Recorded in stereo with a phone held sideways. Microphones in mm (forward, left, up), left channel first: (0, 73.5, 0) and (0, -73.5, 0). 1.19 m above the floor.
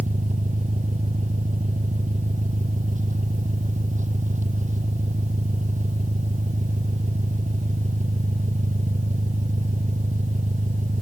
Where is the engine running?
60° right (ahead or behind).